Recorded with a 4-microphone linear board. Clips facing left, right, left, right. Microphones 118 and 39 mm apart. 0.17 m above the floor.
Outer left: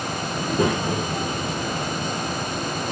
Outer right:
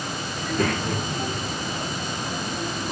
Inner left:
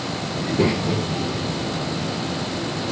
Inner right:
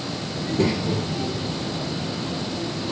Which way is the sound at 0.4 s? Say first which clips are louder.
Outer left 3 dB, inner left 2 dB; 25° left (ahead or behind).